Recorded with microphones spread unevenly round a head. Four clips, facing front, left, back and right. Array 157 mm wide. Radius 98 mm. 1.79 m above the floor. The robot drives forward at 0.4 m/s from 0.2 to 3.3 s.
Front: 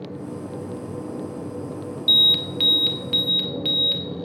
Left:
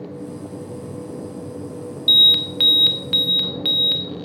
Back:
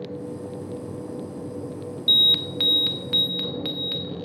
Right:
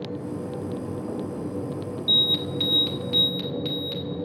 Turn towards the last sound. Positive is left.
turn(degrees=145)